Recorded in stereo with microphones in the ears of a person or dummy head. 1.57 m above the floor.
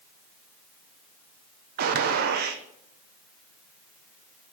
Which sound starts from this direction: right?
A gunshot, at 1.8 s.